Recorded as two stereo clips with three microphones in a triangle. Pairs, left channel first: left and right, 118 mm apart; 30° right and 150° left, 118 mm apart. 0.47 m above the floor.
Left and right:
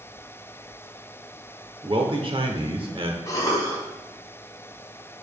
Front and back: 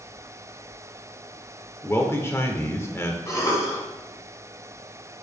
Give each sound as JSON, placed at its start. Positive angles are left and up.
{"t": 1.8, "sound": "a man speaking", "azimuth_deg": -90, "distance_m": 1.0}
{"t": 3.3, "sound": "a cough", "azimuth_deg": 30, "distance_m": 3.5}